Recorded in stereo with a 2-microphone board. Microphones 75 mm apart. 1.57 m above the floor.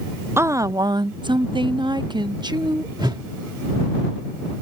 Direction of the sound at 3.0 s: 70° right (ahead or behind).